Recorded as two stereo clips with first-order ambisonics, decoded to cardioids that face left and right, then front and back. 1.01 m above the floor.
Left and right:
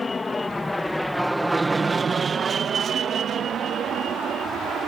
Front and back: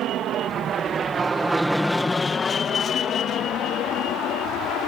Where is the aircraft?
160° left; by 4.9 s 35° right.